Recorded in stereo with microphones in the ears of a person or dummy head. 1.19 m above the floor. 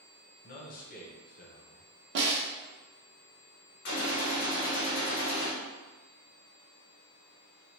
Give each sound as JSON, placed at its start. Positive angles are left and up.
{"t": 0.4, "sound": "a man speaking", "side_deg": 45, "distance_m": 0.8}
{"t": 2.1, "sound": "a snare drum", "side_deg": -55, "distance_m": 0.8}
{"t": 3.9, "sound": "a gunshot", "side_deg": 55, "distance_m": 0.8}